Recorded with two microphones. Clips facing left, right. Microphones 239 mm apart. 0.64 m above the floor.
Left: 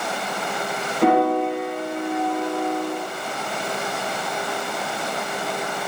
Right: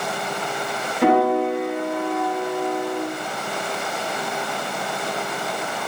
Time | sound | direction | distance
1.0 | a piano | 5° right (ahead or behind) | 1.5 m